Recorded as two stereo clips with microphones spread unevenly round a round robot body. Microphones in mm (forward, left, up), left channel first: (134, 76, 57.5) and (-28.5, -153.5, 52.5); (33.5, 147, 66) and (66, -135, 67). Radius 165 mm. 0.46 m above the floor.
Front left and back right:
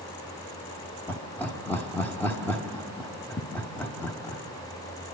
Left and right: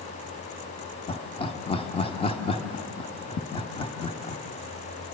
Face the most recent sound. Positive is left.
turn(degrees=130)